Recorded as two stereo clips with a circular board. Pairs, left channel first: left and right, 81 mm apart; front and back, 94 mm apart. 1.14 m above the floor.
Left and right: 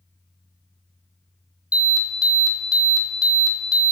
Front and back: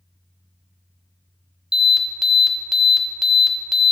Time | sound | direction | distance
1.7 | an alarm | 95° left | 0.8 m